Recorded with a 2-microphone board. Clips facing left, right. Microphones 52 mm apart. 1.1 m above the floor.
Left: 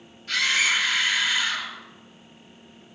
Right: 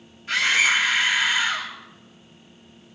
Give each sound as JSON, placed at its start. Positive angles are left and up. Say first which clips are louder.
{"t": 0.3, "sound": "a scream", "louder": "right 3 dB", "side_deg": -20, "distance_m": 3.0}